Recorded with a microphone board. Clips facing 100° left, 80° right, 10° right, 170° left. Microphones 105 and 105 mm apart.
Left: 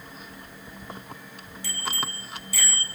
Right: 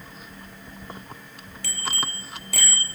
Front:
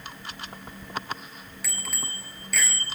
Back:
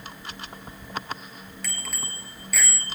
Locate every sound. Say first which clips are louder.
1.6 s a bicycle bell: right 1 dB, front 1 dB; 95° right, 4 m; by 2.9 s 105° right, 4.5 m